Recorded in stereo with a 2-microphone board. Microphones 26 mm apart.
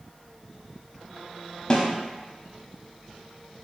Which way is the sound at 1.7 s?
25° left (ahead or behind).